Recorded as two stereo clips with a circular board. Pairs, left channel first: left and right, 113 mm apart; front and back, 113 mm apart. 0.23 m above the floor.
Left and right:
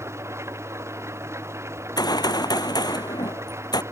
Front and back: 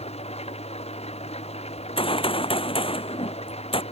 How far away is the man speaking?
I don't hear a man speaking.